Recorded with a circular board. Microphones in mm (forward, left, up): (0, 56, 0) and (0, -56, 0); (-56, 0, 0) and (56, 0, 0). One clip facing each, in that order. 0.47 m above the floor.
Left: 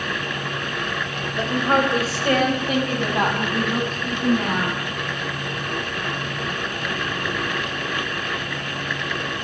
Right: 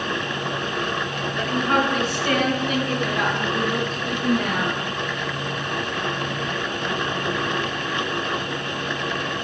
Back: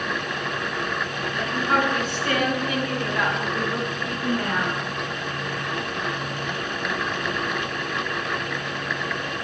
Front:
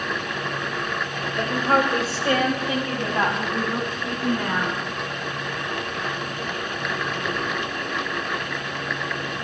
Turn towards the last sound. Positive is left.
turn(degrees=60)